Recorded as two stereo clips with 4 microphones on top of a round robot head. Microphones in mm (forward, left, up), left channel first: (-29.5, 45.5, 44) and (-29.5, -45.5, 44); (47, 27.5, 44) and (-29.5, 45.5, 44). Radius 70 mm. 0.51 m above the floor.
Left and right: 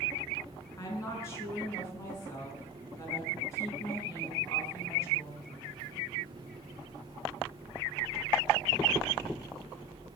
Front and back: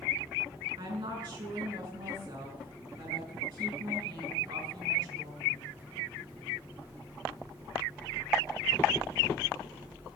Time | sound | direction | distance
0.8 | a woman speaking | 150° left | 5.5 m